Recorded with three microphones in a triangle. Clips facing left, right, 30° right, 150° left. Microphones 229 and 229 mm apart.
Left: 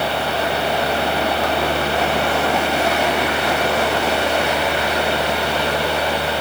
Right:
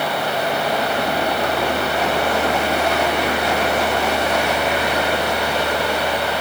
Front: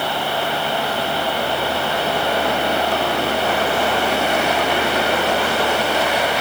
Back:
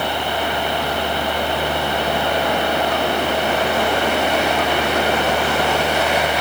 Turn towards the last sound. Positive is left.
No sound to turn to.